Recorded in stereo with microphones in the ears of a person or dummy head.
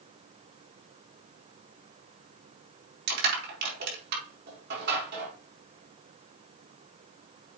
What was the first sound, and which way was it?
Crushing, 65° right (ahead or behind).